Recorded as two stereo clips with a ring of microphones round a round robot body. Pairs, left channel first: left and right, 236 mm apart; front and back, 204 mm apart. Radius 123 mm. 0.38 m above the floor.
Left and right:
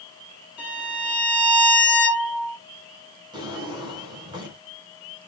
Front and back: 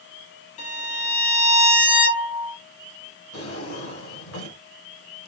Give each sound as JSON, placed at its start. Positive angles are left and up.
{"t": 0.6, "sound": "a violin", "azimuth_deg": -5, "distance_m": 3.0}
{"t": 3.3, "sound": "a drawer", "azimuth_deg": -15, "distance_m": 2.5}